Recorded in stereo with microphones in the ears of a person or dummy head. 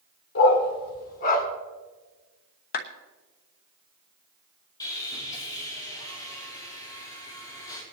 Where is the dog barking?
65° left (ahead or behind), 2 m; by 1.5 s 40° left (ahead or behind), 2 m.